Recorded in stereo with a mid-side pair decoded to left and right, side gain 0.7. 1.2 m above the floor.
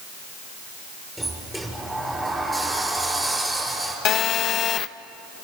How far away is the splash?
I don't hear a splash.